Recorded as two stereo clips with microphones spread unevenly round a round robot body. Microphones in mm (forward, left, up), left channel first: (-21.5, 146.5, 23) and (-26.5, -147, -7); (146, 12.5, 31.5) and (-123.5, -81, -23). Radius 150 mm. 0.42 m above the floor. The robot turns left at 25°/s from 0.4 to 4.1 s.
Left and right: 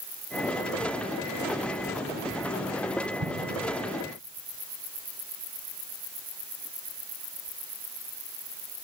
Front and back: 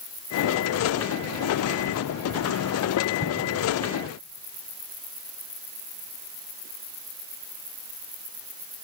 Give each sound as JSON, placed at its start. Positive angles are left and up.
{"t": 3.2, "sound": "an explosion", "azimuth_deg": -35, "distance_m": 2.0}